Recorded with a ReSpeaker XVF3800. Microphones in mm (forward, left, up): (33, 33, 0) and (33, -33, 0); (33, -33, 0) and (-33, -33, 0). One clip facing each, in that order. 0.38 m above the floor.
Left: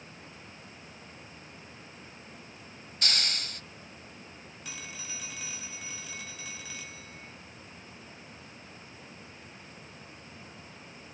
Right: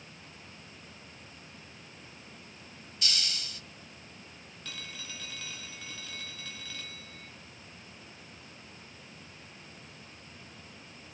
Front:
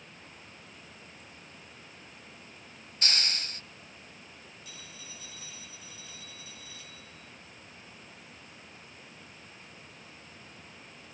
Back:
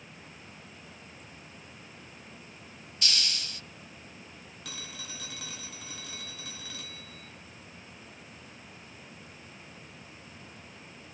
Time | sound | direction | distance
3.0 | a hiss | 50° left | 0.6 m
4.7 | a phone ringing | 165° left | 2.5 m